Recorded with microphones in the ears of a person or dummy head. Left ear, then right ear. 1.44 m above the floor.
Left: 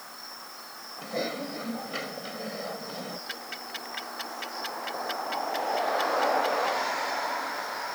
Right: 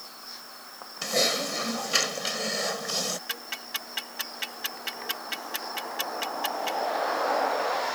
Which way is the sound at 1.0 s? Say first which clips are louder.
Right 7 dB; 70° right (ahead or behind).